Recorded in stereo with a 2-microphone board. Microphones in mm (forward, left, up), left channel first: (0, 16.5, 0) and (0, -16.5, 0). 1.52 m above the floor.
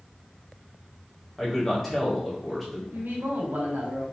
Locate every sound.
1.4 s a man speaking: 5° left (ahead or behind), 1.9 m
2.9 s a man speaking: 80° right, 1.5 m